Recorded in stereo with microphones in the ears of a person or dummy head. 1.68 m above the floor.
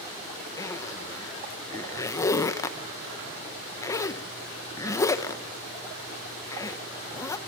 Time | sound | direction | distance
0.6 | a zipper | 15° left (ahead or behind) | 1.0 m